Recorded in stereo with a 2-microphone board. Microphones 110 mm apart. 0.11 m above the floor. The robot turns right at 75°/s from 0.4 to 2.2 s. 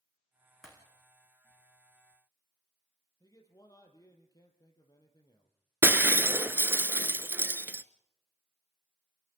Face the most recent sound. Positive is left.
turn(degrees=-20)  # may be behind; listen again after turning